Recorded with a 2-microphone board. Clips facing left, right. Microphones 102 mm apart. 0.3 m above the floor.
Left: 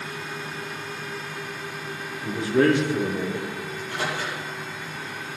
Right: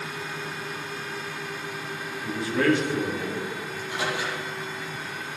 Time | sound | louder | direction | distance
2.2 | a man speaking | left 4 dB | 20° left (ahead or behind) | 5.5 m
3.7 | a microwave | even | 10° right (ahead or behind) | 7 m